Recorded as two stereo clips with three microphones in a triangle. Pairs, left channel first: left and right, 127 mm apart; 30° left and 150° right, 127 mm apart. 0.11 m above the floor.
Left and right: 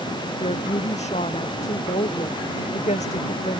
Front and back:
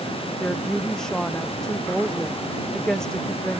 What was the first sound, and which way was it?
A woman speaking, 115° left.